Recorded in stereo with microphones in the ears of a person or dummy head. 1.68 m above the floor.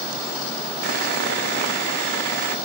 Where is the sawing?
60° right (ahead or behind), 0.7 m.